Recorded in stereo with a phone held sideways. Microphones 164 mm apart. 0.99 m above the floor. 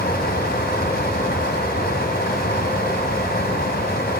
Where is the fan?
80° left, 2.5 m.